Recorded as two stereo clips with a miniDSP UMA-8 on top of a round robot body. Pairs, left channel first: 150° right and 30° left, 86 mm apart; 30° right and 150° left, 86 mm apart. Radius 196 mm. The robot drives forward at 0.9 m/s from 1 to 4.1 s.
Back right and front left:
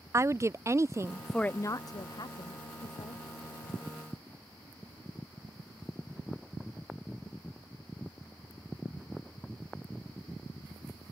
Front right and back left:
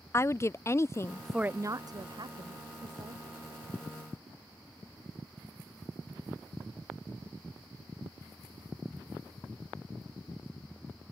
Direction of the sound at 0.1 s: Straight ahead.